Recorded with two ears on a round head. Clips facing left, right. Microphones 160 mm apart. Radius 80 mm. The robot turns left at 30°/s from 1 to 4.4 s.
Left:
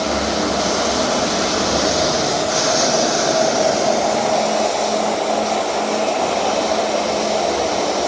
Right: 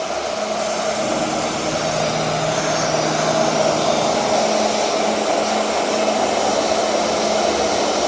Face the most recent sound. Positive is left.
turn(degrees=0)